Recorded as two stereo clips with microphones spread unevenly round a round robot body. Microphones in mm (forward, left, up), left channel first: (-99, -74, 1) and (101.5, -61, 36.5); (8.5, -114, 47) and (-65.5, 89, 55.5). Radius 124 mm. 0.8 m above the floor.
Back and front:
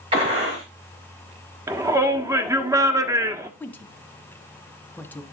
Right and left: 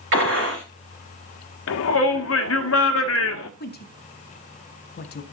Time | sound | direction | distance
0.1 | a gunshot | 75° left | 3.5 m
1.7 | a shout | 75° right | 1.5 m
3.6 | a woman speaking | 105° right | 1.6 m